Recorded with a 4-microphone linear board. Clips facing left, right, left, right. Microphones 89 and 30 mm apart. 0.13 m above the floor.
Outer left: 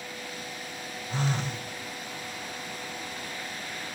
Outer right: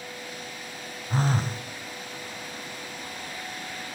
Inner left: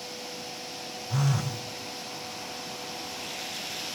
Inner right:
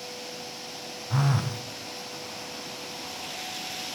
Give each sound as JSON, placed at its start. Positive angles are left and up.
{"t": 1.1, "sound": "a phone buzzing", "side_deg": -40, "distance_m": 1.8}